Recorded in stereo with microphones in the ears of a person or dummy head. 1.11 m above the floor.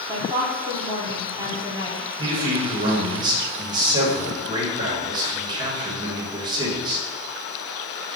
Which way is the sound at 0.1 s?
20° right (ahead or behind).